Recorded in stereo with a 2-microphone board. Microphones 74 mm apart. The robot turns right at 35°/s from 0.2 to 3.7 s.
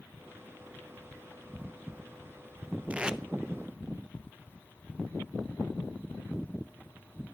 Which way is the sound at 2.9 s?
20° right (ahead or behind).